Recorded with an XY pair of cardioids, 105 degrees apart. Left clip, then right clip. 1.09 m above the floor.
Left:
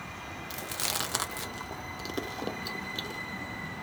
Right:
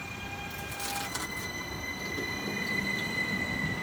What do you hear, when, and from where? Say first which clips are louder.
0.5 s chewing: left 5 dB; 65° left, 0.7 m